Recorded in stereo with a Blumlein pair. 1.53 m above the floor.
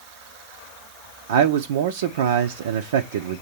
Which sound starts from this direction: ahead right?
A man speaking, at 1.3 s.